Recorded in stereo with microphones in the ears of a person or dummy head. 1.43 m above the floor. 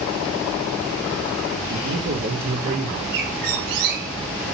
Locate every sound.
1.7 s a man speaking: 80° right, 4 m; by 3.0 s 70° right (ahead or behind), 3.5 m
3.1 s a bird: 70° right (ahead or behind), 6.5 m